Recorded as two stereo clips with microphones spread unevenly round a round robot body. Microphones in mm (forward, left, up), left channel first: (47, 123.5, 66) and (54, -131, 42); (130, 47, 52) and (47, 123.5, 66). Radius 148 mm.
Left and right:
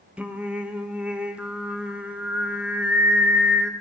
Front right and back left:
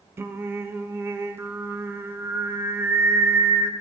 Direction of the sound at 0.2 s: 160° right.